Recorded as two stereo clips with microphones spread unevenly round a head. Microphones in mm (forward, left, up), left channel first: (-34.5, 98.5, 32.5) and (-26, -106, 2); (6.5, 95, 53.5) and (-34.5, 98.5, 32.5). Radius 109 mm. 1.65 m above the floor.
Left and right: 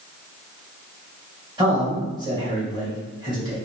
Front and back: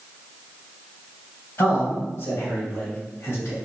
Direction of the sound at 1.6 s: 15° right.